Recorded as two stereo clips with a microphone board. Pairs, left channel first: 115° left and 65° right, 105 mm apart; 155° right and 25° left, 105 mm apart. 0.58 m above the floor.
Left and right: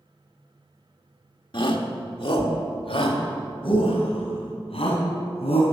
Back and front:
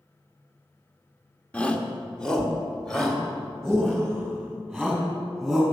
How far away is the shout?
About 1.1 m.